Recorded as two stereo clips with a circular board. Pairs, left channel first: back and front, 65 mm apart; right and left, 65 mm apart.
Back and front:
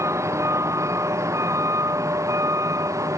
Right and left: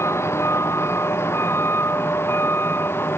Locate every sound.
0.0 s a vehicle: 45° right; by 3.2 s 35° right